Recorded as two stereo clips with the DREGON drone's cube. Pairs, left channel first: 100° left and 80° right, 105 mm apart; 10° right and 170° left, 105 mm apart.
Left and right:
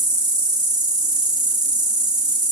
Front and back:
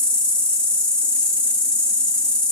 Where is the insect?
85° right, 1.4 m.